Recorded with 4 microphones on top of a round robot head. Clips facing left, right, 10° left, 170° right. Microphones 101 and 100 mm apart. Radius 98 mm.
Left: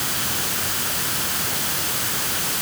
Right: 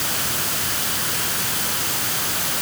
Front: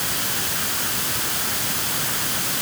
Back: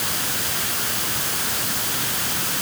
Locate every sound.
Only background noise.